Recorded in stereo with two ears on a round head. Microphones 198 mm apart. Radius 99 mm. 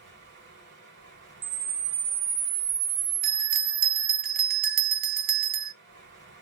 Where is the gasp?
No gasp in this recording.